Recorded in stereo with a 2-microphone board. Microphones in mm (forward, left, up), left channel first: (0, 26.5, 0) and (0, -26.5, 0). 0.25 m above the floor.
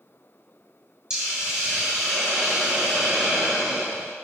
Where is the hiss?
15° right (ahead or behind), 1.8 m.